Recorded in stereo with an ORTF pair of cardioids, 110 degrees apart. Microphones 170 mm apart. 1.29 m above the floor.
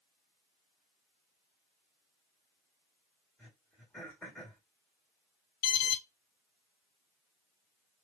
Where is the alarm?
60° left, 0.7 m.